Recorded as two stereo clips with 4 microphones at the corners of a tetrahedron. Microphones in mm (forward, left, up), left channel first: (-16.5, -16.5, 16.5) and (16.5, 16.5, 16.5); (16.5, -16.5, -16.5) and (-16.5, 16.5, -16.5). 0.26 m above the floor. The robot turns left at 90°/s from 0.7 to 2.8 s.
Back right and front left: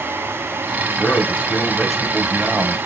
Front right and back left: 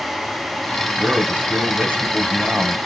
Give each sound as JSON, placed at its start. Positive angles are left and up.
{"t": 1.0, "sound": "a man speaking", "azimuth_deg": -140, "distance_m": 1.2}